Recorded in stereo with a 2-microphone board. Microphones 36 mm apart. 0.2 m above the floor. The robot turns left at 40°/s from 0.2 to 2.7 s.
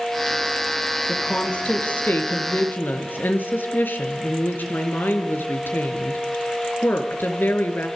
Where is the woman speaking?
160° left, 4 m; by 7.9 s 95° left, 4 m.